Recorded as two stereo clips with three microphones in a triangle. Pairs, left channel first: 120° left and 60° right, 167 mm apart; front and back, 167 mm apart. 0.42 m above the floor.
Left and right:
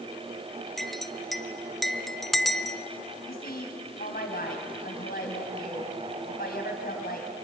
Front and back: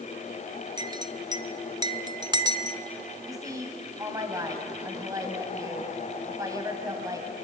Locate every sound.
0.8 s a clink: 155° right, 0.7 m
3.3 s a woman speaking: 110° left, 3 m